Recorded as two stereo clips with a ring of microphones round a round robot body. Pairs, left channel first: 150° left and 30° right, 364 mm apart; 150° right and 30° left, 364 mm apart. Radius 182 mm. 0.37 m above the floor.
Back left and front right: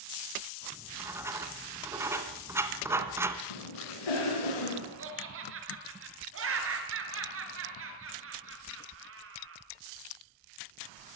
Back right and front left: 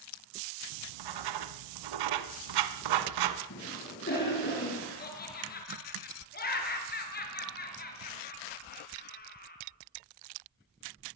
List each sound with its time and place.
0.7 s writing: 55° left, 1.9 m
3.5 s a cough: 145° left, 4.5 m
5.0 s laughter: 85° right, 6 m